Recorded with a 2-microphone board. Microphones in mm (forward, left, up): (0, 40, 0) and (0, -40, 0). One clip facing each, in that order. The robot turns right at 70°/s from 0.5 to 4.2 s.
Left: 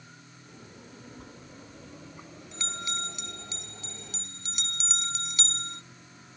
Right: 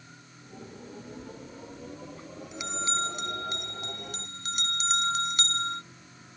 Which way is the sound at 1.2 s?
70° left (ahead or behind).